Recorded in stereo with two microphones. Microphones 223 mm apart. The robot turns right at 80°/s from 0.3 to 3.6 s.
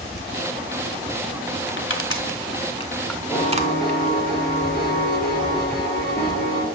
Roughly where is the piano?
Left.